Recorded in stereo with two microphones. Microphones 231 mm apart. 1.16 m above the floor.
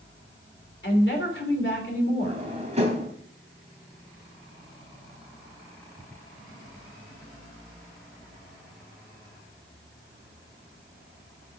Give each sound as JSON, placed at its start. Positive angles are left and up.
{"t": 0.8, "sound": "a woman speaking", "side_deg": 55, "distance_m": 3.5}
{"t": 2.2, "sound": "a drawer", "side_deg": -30, "distance_m": 3.0}